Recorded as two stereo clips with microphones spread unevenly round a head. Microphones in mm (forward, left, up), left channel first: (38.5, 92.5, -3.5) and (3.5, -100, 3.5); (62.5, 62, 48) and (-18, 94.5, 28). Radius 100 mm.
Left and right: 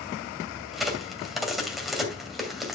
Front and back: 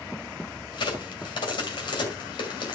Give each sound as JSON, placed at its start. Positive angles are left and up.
{"t": 0.7, "sound": "a crack", "azimuth_deg": -10, "distance_m": 2.5}